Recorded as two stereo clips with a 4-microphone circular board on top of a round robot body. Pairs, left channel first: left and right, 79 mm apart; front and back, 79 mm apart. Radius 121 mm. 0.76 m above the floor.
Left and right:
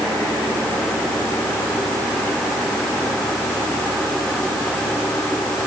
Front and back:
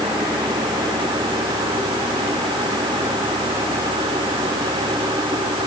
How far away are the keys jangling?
No keys jangling in this recording.